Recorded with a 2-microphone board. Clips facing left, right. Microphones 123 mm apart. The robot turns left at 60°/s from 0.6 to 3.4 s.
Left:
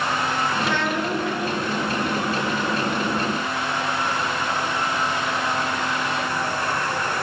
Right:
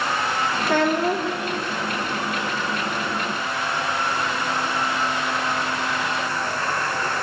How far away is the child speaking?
About 0.7 m.